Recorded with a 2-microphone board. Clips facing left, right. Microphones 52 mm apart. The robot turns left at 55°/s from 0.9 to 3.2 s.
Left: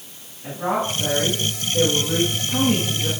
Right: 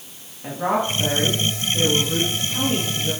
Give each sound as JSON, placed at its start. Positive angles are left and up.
{"t": 0.4, "sound": "a woman speaking", "azimuth_deg": -155, "distance_m": 2.0}